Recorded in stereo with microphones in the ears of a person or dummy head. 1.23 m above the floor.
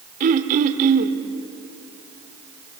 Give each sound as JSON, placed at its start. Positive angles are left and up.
{"t": 0.2, "sound": "throat clearing", "side_deg": -50, "distance_m": 1.6}